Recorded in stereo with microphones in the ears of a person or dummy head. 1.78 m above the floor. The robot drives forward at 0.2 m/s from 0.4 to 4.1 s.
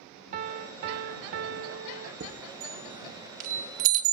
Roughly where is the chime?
Right.